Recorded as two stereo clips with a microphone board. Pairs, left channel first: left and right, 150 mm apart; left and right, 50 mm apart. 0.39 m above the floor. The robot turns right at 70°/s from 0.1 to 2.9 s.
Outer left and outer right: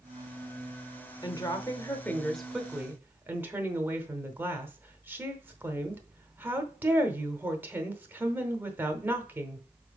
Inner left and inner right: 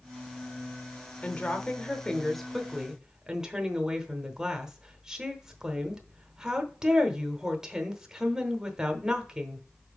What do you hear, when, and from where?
1.2 s a woman speaking: 25° left (ahead or behind), 0.9 m; by 9.6 s 15° right (ahead or behind), 0.9 m